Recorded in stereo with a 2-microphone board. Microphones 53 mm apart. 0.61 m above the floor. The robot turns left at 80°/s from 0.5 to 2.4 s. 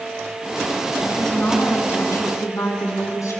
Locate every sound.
1.1 s a woman speaking: 175° right, 6.5 m; by 3.4 s 80° left, 6.5 m